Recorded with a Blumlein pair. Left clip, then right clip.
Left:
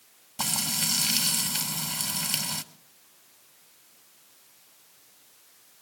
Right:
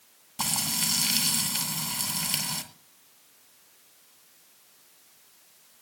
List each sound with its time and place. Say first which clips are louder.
0.4 s frying: even; straight ahead, 1.2 m